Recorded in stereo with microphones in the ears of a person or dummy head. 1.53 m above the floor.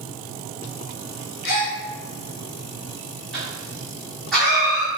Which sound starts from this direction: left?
A gasp, at 1.4 s.